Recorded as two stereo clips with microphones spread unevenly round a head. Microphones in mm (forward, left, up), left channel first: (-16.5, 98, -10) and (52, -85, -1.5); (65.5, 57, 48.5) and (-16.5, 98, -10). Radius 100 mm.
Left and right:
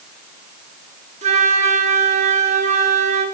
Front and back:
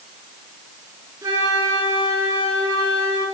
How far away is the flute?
About 1.3 m.